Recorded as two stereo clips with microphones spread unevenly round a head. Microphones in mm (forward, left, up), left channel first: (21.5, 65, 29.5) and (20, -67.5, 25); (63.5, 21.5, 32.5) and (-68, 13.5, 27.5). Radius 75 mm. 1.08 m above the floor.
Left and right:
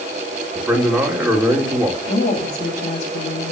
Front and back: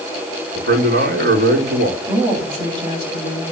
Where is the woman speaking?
120° left, 7.5 m.